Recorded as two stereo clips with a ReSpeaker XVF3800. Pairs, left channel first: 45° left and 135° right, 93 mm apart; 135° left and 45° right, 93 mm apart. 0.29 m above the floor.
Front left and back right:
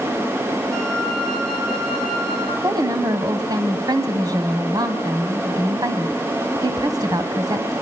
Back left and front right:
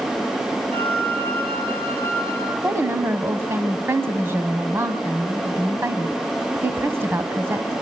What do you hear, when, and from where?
0.7 s a flute: 40° right, 7 m
2.6 s a woman speaking: 105° right, 1.6 m